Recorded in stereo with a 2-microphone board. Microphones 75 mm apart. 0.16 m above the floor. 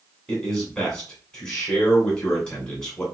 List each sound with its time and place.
0.3 s a man speaking: 10° left (ahead or behind), 1.8 m